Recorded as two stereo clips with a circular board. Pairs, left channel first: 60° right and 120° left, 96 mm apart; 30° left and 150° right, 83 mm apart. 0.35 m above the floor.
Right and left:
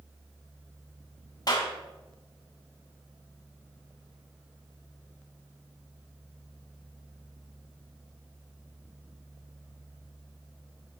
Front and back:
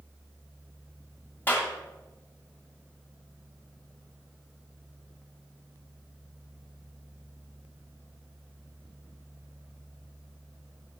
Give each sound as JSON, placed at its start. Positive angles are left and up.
{"t": 1.5, "sound": "a clap", "azimuth_deg": -30, "distance_m": 1.4}